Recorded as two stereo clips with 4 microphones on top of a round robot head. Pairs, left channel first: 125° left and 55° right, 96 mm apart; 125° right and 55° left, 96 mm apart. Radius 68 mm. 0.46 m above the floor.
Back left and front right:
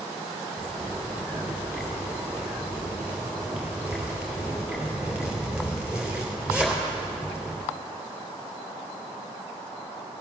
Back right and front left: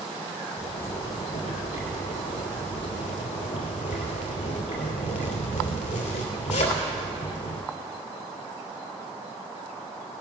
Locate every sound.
0.6 s a zipper: 130° right, 2.5 m